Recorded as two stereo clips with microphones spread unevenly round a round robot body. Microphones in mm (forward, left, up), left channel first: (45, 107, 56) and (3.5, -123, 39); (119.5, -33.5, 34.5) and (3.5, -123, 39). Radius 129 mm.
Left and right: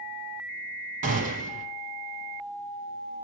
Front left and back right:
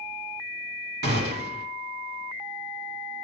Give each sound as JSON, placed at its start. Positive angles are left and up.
{"t": 1.0, "sound": "a gunshot", "azimuth_deg": -160, "distance_m": 0.9}